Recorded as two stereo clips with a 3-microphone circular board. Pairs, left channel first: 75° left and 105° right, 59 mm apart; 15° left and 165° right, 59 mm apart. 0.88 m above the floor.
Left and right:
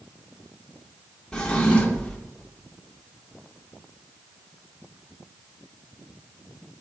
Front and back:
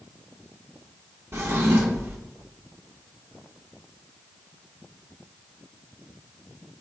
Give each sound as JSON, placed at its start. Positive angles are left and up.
{"t": 1.3, "sound": "a drawer", "azimuth_deg": 150, "distance_m": 0.9}